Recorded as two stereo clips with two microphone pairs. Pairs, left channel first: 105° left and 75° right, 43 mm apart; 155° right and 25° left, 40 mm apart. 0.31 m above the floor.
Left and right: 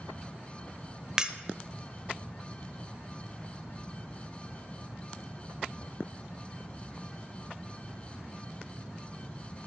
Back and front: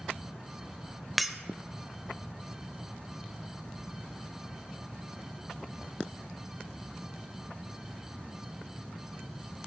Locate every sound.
1.2 s breaking glass: 50° right, 0.6 m